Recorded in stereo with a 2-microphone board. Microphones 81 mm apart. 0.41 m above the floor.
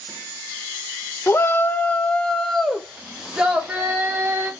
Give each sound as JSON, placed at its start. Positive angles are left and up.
{"t": 1.3, "sound": "a shout", "side_deg": 30, "distance_m": 1.1}